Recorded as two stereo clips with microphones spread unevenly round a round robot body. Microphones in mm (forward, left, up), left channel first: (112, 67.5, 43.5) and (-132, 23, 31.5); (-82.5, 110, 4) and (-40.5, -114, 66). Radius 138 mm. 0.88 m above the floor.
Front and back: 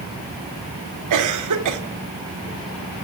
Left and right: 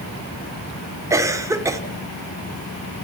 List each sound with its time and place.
1.1 s a cough: 160° right, 2.5 m